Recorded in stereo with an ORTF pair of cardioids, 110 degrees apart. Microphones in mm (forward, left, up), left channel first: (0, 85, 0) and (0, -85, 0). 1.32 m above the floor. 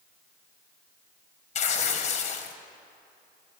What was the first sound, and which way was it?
Tearing paper, 40° left.